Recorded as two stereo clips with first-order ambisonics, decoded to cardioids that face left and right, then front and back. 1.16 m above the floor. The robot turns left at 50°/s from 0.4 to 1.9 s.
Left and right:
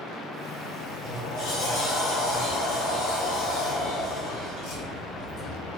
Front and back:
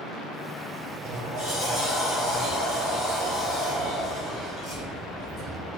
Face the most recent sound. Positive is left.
turn(degrees=90)